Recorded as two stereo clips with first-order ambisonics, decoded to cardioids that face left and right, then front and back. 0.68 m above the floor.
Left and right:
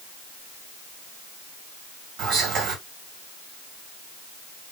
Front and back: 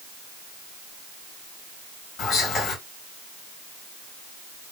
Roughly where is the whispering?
Ahead right.